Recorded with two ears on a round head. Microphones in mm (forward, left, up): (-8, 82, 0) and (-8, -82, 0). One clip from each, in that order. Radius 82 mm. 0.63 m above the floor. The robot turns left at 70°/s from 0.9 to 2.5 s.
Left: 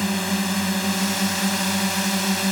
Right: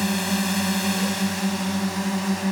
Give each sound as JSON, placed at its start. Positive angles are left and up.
{"t": 0.0, "sound": "a drone", "azimuth_deg": 180}